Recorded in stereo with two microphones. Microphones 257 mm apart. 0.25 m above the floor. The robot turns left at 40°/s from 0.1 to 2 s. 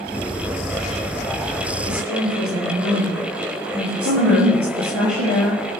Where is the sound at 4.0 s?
65° right (ahead or behind), 4.5 m.